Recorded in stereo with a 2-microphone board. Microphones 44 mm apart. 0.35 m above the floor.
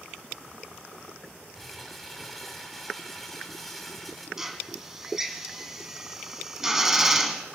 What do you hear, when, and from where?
1.6 s crumpling: 5° left (ahead or behind), 1.9 m
4.4 s a drill: 10° right (ahead or behind), 1.2 m